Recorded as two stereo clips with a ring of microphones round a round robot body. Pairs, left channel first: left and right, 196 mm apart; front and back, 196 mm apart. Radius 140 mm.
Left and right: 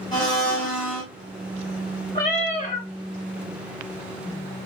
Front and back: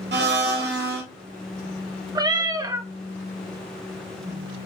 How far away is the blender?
About 1.0 m.